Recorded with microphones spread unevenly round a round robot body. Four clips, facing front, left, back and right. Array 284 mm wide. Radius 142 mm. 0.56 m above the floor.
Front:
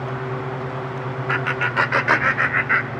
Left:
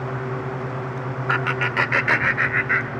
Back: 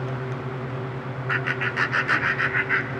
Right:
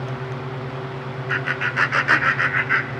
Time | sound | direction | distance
1.3 | laughter | 40° left | 1.4 m